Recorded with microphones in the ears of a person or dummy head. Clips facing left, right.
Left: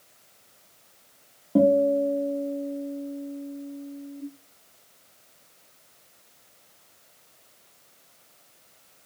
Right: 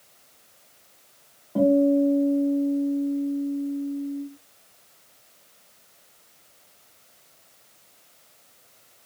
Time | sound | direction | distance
1.6 | a guitar | 45° left (ahead or behind) | 0.9 m